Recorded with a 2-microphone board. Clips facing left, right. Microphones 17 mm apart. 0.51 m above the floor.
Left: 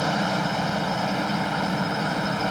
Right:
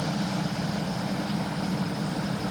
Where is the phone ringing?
No phone ringing in this recording.